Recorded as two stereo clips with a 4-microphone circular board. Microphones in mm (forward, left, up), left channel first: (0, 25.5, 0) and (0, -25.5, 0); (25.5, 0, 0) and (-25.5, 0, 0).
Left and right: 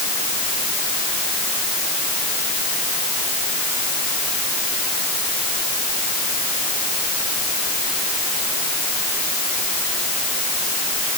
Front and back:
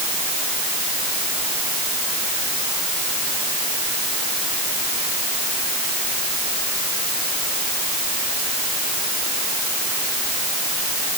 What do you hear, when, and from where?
Only background noise.